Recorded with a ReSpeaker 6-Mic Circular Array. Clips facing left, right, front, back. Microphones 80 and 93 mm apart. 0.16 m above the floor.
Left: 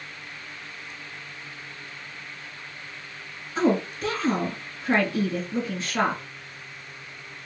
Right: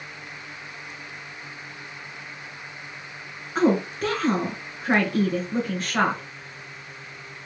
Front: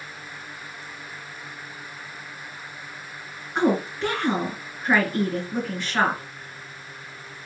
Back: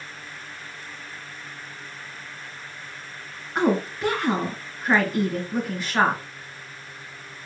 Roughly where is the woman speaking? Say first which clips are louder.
Right 2 dB, even; right.